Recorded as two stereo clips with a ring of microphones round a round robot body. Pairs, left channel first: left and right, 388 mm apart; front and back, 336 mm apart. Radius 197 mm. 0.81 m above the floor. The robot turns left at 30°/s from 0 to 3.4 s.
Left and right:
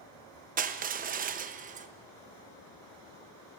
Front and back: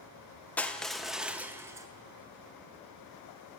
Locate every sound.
0.6 s crushing: 75° right, 0.6 m; by 1.9 s 115° right, 0.6 m